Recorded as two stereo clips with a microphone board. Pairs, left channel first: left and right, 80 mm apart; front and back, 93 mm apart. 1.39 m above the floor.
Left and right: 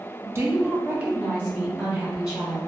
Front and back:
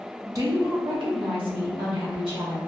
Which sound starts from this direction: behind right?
A woman speaking, at 0.2 s.